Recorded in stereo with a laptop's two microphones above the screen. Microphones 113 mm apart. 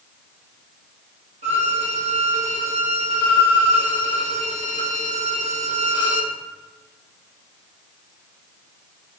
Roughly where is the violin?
Right.